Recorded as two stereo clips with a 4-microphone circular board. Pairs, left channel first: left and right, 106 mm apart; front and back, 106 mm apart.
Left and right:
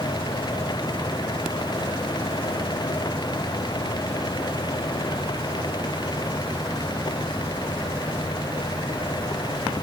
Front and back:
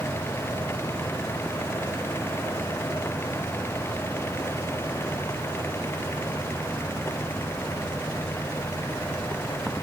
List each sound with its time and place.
Only background noise.